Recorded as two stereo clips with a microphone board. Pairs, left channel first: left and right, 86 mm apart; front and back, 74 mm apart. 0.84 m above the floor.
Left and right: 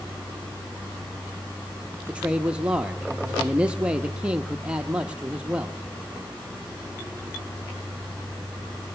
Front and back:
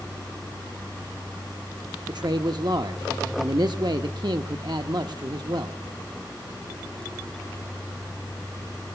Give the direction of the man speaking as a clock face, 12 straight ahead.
6 o'clock.